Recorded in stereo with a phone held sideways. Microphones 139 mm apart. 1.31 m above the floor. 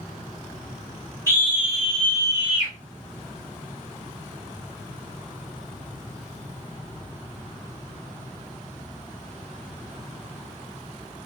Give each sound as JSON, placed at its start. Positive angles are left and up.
{"t": 1.3, "sound": "a scream", "side_deg": -20, "distance_m": 0.9}